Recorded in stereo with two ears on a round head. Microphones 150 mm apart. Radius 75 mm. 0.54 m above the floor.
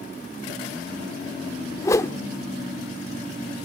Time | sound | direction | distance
1.8 | a whoosh | 20° left (ahead or behind) | 0.7 m